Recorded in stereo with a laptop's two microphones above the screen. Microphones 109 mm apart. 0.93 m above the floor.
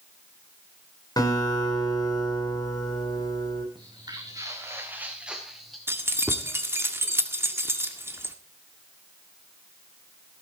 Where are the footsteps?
45° right (ahead or behind), 3.5 m; by 5.8 s centre (ahead or behind), 3.5 m.